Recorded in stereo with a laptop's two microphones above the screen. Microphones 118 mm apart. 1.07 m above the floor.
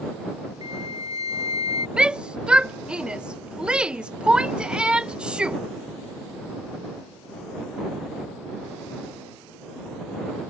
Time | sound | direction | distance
0.6 | a flute | 35° right (ahead or behind) | ?
2.0 | a shout | 10° right (ahead or behind) | ?